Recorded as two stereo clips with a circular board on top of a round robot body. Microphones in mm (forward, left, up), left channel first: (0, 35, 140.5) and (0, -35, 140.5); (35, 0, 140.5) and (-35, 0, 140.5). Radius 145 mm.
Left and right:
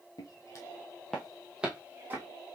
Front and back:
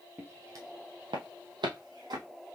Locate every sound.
0.2 s footsteps: 120° left, 1.3 m; by 2.2 s 150° right, 1.8 m